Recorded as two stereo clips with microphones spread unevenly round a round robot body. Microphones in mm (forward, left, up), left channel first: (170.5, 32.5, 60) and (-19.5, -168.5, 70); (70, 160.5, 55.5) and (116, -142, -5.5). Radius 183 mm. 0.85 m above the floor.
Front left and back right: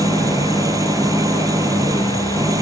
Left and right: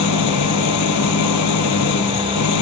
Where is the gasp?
No gasp in this recording.